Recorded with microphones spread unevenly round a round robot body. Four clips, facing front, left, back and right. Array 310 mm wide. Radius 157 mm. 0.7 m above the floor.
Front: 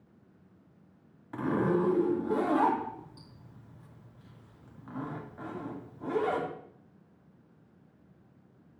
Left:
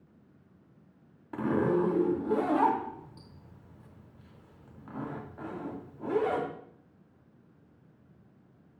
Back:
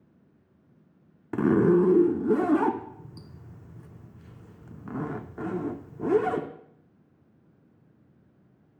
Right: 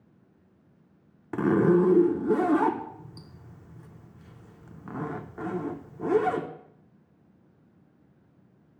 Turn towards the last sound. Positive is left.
turn(degrees=-155)